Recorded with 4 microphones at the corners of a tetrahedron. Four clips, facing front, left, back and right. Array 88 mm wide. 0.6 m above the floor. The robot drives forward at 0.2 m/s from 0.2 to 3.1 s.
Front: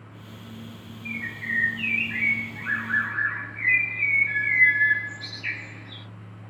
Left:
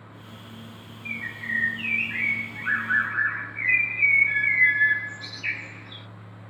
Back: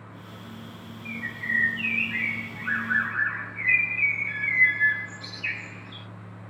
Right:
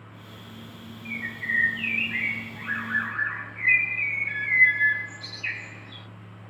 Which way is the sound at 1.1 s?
45° left.